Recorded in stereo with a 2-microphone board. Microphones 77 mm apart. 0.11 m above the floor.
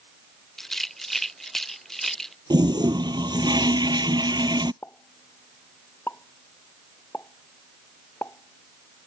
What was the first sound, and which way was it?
A rattle, 5° left (ahead or behind).